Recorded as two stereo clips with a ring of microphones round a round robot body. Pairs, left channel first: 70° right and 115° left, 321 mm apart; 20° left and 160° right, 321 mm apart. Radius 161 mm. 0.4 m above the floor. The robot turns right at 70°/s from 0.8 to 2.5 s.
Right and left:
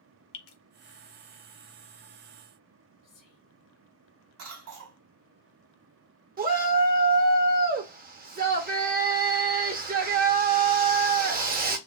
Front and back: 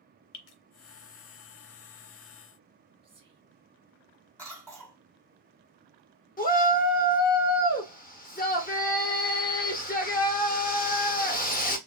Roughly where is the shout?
Left.